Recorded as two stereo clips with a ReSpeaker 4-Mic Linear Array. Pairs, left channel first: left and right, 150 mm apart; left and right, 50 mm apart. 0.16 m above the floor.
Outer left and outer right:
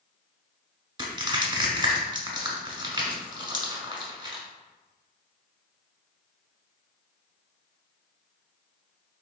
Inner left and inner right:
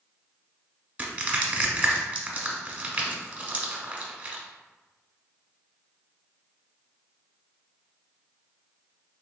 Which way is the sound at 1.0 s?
30° right (ahead or behind).